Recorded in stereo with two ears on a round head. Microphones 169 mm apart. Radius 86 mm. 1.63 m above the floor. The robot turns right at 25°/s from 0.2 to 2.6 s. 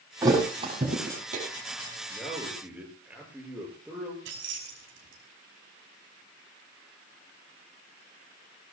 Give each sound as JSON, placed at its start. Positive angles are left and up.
{"t": 0.2, "sound": "a thud", "side_deg": -20, "distance_m": 7.0}
{"t": 2.1, "sound": "a man speaking", "side_deg": 5, "distance_m": 7.0}
{"t": 4.2, "sound": "keys jangling", "side_deg": -75, "distance_m": 6.0}